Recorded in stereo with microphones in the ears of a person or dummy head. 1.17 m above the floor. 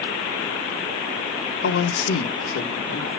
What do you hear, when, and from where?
1.6 s a man speaking: 85° left, 2.5 m